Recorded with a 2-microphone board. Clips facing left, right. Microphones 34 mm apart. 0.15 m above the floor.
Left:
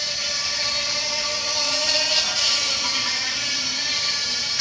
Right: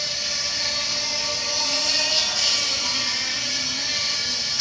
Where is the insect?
45° left (ahead or behind), 6 m.